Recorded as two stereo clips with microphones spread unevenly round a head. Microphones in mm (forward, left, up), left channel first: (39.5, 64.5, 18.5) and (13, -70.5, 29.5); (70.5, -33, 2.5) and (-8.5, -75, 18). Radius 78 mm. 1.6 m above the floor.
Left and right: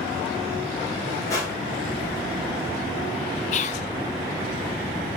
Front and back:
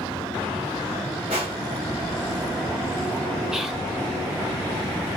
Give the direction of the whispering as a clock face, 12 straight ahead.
8 o'clock.